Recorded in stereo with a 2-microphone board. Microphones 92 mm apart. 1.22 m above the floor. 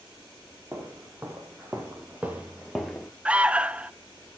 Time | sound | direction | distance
0.7 | footsteps | 30° right (ahead or behind) | 3.5 m
3.2 | an alarm | 15° right (ahead or behind) | 0.6 m